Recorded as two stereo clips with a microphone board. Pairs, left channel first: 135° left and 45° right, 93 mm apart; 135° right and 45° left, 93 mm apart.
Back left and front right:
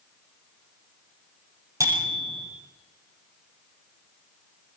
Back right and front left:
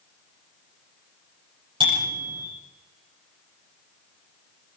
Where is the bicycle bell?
10° left, 9.5 m.